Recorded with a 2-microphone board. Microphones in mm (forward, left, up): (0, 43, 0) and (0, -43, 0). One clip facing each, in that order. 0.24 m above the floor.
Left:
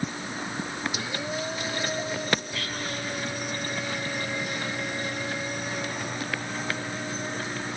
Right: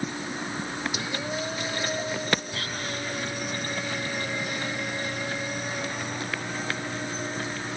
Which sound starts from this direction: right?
Whispering, at 2.5 s.